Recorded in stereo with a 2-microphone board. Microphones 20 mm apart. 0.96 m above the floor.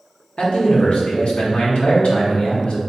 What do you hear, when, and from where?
0.4 s a man speaking: 65° left (ahead or behind), 1.0 m